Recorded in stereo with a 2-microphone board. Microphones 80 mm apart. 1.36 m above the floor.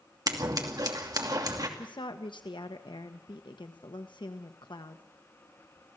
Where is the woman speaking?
70° left (ahead or behind), 1.2 m.